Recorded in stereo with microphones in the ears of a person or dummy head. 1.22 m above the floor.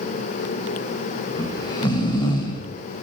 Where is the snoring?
20° left (ahead or behind), 1.2 m.